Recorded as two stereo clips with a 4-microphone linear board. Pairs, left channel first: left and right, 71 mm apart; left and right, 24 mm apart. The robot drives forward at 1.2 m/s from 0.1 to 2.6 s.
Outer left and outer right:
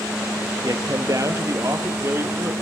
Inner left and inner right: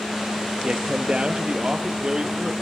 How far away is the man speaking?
About 2 m.